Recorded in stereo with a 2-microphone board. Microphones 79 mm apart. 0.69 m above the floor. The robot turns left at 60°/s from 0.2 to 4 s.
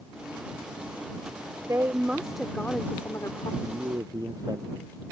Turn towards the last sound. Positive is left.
turn(degrees=-50)  # may be behind; listen again after turning